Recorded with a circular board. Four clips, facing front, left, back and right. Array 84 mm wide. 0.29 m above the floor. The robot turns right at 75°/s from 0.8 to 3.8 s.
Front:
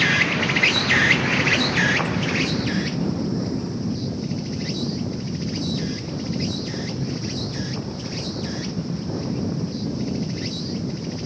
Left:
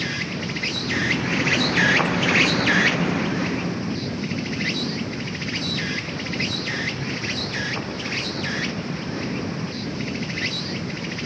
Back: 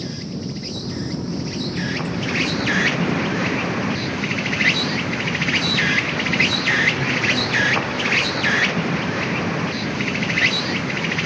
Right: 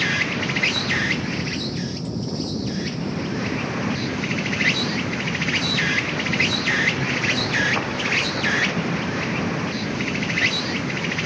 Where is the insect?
20° right; by 11.3 s 155° right.